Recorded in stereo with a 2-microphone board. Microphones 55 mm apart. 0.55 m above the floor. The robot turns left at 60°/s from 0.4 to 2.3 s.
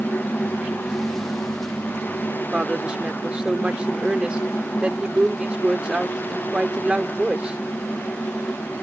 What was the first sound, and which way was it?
A woman speaking, 20° right (ahead or behind).